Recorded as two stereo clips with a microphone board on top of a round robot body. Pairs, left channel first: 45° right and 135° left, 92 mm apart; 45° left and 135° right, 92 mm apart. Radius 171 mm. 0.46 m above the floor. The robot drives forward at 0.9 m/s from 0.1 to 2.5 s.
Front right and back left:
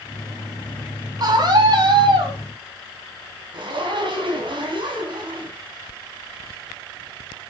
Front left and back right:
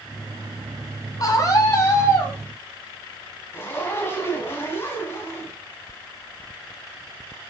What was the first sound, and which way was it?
A scream, 95° left.